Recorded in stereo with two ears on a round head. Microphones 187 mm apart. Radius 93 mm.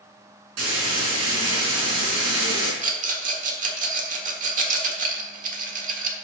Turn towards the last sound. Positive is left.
turn(degrees=-40)  # may be behind; listen again after turning